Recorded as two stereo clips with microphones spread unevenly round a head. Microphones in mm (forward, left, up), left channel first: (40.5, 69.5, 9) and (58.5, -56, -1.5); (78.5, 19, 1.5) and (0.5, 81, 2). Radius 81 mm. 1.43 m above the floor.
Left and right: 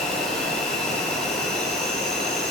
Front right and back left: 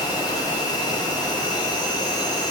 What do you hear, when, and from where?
0.0 s an insect: 10° left, 7 m